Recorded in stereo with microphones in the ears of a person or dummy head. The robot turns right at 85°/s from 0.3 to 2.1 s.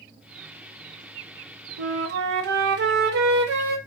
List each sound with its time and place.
1.8 s a flute: 60° right (ahead or behind), 0.8 m